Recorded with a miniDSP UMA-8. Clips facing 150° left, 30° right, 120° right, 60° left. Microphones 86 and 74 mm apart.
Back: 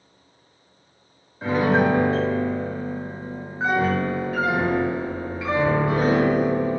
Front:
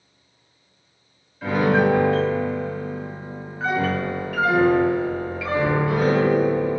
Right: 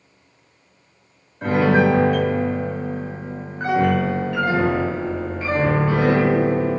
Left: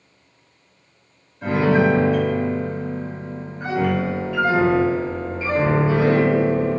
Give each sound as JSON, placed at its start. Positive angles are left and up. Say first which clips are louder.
{"t": 1.4, "sound": "a piano", "louder": "front 1 dB, right 1 dB", "azimuth_deg": -150, "distance_m": 1.6}